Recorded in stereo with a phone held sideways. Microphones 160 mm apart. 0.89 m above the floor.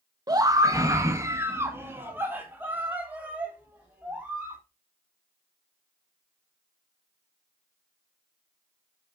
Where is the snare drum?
No snare drum in this recording.